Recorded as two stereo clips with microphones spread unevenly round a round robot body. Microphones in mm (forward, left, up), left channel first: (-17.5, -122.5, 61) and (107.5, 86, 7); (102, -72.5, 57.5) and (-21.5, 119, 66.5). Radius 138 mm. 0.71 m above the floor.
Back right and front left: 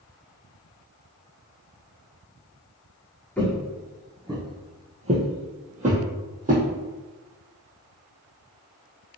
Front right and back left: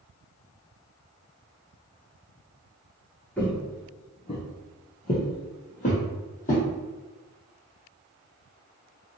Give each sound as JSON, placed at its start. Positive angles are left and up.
{"t": 3.4, "sound": "footsteps", "azimuth_deg": -140, "distance_m": 0.7}